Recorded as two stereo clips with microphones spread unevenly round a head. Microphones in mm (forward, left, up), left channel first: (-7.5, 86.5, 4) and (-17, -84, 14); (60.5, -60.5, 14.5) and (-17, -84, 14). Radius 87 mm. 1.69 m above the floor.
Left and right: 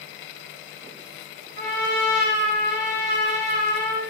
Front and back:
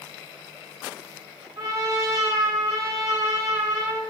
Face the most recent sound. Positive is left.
turn(degrees=-115)